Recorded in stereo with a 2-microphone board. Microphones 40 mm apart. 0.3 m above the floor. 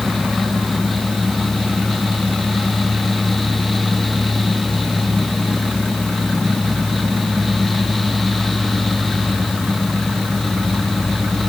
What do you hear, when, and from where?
Only background noise.